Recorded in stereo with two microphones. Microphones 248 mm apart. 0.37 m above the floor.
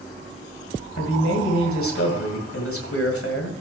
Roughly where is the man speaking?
Left.